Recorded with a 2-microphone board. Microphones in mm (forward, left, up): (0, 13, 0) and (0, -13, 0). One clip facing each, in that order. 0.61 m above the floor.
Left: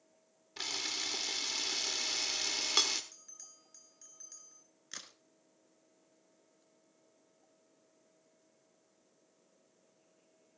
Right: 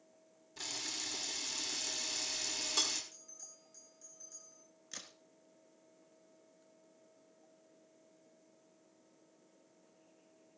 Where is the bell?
50° left (ahead or behind), 2 m.